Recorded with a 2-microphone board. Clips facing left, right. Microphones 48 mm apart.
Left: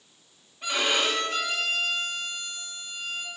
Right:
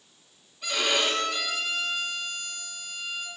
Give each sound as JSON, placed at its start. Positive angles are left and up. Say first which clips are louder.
{"t": 0.6, "sound": "a violin", "louder": "left 1 dB", "side_deg": 40, "distance_m": 2.5}